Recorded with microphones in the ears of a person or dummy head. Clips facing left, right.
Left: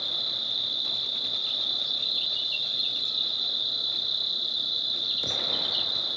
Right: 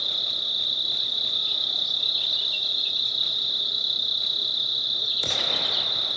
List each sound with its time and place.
0.0 s an insect: 25° left (ahead or behind), 1.6 m